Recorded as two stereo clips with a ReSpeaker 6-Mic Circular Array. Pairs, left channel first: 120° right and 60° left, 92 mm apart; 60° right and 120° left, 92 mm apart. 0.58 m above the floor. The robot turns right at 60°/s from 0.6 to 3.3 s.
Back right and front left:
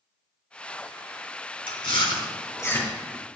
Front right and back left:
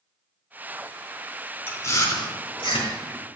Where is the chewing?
120° right, 3.5 m; by 3.3 s 25° right, 3.5 m.